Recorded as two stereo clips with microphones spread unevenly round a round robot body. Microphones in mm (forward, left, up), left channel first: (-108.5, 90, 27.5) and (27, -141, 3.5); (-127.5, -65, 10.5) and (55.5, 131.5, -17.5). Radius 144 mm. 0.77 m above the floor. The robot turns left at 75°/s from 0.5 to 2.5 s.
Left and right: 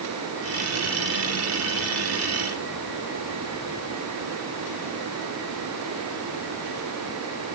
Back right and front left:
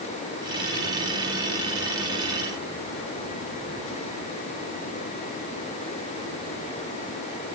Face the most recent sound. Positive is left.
No sound to turn to.